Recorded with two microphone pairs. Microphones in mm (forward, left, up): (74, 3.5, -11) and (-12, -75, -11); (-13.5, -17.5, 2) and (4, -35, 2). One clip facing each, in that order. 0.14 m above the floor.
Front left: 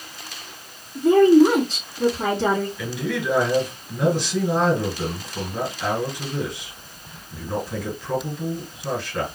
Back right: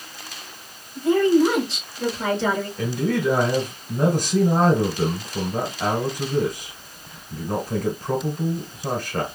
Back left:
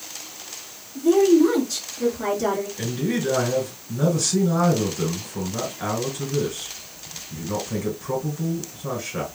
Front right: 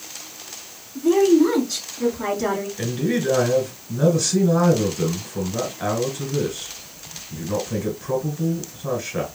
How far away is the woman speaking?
About 3 m.